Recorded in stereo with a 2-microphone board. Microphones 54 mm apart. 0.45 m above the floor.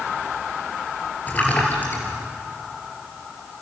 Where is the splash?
30° left (ahead or behind), 4.5 m.